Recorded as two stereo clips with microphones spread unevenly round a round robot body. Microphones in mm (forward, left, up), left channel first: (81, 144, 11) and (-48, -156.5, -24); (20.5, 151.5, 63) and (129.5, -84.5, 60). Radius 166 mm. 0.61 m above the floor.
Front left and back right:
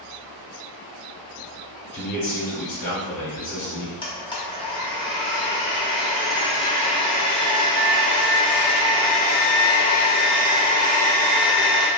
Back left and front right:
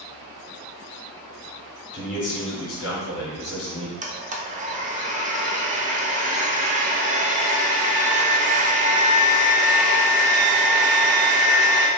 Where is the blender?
10° right, 0.6 m.